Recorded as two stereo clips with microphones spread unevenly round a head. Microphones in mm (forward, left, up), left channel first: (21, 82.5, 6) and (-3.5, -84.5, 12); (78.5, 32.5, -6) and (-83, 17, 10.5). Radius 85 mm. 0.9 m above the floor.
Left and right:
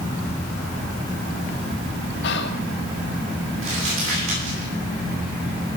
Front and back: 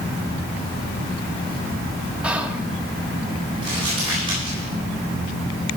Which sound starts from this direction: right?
Crumpling, at 3.6 s.